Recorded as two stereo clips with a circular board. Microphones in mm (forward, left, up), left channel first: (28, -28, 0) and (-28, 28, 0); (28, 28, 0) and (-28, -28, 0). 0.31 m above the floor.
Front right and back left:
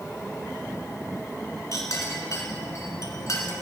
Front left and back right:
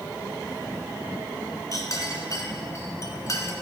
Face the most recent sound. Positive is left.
turn(degrees=0)